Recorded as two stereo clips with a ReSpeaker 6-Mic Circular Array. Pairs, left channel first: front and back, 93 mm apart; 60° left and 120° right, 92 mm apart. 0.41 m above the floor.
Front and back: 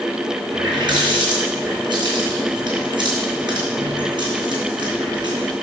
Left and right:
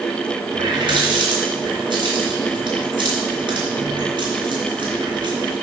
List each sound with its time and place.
0.5 s a running tap: 150° right, 2.5 m